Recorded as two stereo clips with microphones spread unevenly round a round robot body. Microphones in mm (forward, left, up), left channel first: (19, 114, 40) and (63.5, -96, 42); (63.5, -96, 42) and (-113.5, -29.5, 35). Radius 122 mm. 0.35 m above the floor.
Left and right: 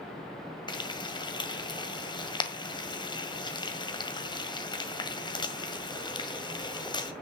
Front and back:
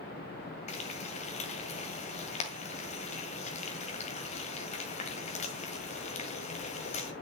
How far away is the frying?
About 1.8 m.